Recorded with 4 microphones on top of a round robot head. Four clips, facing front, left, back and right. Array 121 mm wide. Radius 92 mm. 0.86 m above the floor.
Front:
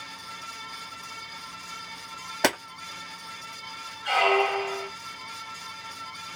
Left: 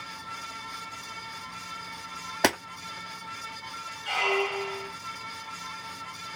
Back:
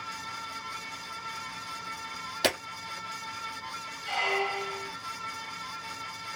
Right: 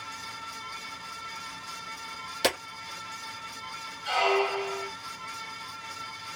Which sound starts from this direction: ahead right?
A squeak, at 4.0 s.